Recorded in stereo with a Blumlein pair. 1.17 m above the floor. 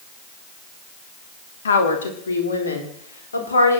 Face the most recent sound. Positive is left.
turn(degrees=75)